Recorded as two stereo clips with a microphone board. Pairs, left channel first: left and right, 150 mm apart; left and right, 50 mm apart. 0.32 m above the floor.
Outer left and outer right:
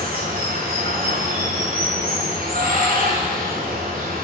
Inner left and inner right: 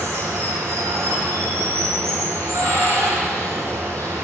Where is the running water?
85° right, 2.5 m.